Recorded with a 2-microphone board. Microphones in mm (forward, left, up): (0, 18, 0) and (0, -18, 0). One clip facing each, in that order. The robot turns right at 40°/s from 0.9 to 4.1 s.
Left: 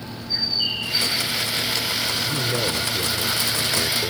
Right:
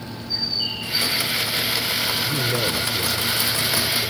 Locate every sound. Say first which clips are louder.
0.3 s a bird: left 2 dB; 20° left (ahead or behind); by 1.3 s 5° left (ahead or behind)
2.2 s a man speaking: right 1 dB; 15° right; by 4.1 s 60° left